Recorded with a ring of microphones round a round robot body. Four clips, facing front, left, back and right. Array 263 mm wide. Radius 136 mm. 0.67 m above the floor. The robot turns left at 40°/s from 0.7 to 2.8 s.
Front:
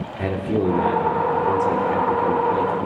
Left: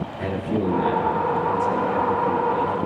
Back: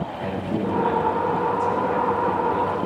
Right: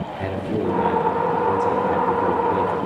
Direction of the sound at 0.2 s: 10° right.